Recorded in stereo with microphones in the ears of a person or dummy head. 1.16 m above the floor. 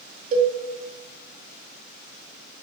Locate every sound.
0.3 s a cowbell: 40° right (ahead or behind), 1.8 m